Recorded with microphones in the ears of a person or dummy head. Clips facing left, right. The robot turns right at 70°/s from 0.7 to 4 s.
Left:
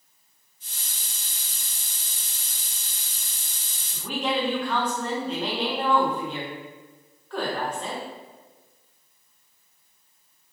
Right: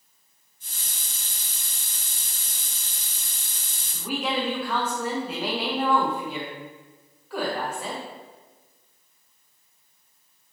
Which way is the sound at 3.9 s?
Centre (ahead or behind).